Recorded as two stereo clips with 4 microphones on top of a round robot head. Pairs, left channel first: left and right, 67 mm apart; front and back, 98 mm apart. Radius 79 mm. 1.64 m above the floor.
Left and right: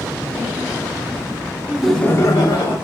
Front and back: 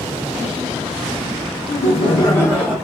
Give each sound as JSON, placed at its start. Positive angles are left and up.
{"t": 1.7, "sound": "laughter", "azimuth_deg": -15, "distance_m": 0.7}